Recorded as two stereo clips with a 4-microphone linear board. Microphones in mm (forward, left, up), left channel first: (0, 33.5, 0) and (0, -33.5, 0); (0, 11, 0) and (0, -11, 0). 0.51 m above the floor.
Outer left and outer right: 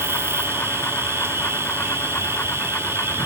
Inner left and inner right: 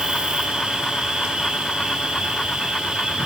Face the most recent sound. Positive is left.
turn(degrees=-40)  # may be behind; listen again after turning